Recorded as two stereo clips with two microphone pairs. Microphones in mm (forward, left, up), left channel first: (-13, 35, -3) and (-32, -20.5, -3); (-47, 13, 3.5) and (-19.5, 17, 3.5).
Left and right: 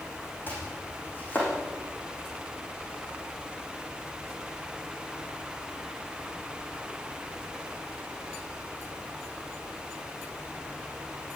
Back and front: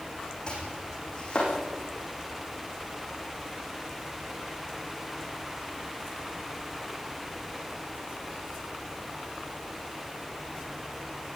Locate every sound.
0.5 s chopping: 130° left, 9.5 m